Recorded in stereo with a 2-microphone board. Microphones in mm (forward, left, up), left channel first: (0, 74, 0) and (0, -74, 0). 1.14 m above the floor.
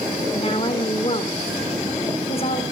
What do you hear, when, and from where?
0.3 s a woman speaking: 40° left (ahead or behind), 3.5 m